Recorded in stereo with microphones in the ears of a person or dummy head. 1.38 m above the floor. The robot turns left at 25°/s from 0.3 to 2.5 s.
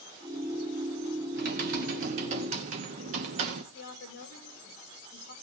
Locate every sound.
1.3 s typing on a keyboard: 50° right (ahead or behind), 1.0 m; by 3.6 s 40° right (ahead or behind), 1.0 m
3.7 s a woman speaking: 50° left (ahead or behind), 3 m